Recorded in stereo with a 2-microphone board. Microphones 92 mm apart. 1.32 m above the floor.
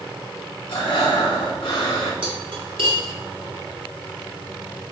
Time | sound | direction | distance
0.7 | breathing | 80° left | 2 m
2.2 | cutlery clinking | 70° right (ahead or behind) | 2 m